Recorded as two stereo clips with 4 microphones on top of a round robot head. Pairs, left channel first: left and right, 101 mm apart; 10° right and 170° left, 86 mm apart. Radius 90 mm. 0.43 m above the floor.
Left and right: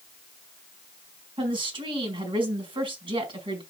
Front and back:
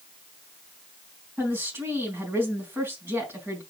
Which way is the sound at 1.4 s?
120° right.